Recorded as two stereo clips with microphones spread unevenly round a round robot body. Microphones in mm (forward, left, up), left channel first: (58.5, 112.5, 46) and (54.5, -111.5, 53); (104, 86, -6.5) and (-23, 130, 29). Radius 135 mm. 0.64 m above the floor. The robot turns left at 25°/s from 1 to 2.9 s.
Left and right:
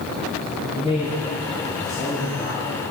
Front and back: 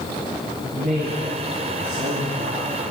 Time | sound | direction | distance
0.7 | a man speaking | 165° right | 4 m